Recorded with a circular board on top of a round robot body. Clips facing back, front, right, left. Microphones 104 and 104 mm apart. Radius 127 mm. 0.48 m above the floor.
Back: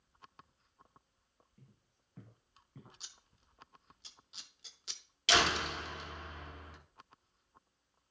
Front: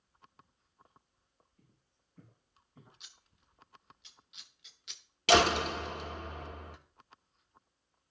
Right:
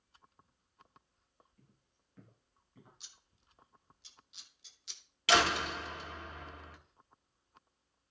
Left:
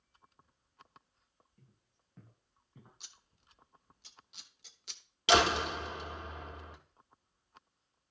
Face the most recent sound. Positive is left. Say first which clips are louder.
# front 6 dB, left 2 dB
turn(degrees=25)